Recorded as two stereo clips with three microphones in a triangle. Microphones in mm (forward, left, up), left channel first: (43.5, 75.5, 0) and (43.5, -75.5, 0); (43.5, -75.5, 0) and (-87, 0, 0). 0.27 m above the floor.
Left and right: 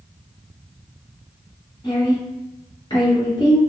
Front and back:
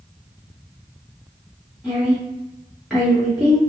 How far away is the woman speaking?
About 1.7 m.